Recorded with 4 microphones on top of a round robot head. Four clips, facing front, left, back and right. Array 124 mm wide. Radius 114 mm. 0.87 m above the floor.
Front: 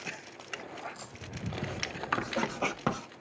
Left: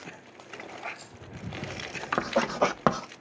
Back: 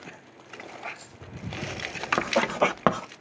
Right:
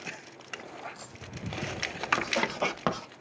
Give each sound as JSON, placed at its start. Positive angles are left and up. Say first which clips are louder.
{"t": 0.8, "sound": "a dropped coin", "louder": "left 2 dB, back 2 dB", "azimuth_deg": -45, "distance_m": 2.0}
{"t": 2.2, "sound": "writing", "louder": "left 5 dB, back 12 dB", "azimuth_deg": 150, "distance_m": 1.0}